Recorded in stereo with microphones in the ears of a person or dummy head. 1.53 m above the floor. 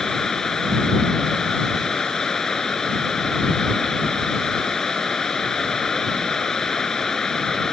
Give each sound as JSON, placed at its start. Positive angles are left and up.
{"t": 0.0, "sound": "running water", "side_deg": 5}